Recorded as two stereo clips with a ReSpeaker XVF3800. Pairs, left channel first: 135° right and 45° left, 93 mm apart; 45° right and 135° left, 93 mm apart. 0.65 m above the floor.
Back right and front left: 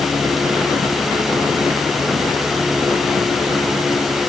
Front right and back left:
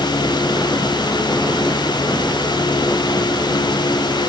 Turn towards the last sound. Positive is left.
No sound to turn to.